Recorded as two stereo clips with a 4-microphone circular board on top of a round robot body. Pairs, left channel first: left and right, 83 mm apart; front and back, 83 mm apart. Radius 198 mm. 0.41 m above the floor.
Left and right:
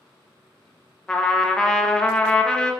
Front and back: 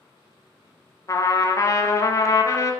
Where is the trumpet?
15° left, 0.6 m.